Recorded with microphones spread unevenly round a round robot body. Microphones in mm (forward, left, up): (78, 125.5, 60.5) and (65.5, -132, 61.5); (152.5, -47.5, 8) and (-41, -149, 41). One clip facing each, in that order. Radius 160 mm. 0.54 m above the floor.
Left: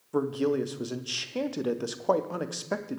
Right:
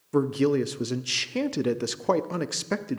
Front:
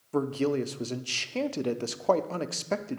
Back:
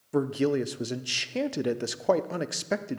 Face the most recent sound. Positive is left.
turn(degrees=-70)